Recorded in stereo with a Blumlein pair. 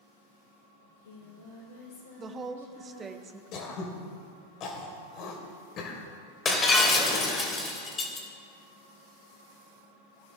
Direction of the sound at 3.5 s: 35° left.